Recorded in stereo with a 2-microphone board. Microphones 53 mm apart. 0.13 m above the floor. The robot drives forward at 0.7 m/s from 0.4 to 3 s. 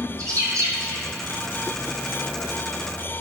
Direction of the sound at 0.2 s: 85° right.